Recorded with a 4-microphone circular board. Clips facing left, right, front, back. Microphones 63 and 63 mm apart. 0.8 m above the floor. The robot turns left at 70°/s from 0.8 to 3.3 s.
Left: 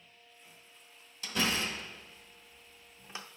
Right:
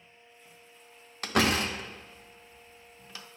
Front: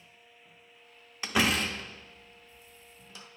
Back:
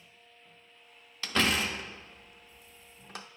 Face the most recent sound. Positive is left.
turn(degrees=145)